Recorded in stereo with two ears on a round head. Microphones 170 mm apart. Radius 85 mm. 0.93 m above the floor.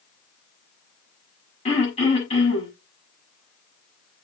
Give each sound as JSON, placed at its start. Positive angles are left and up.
{"t": 1.6, "sound": "throat clearing", "side_deg": 35, "distance_m": 6.5}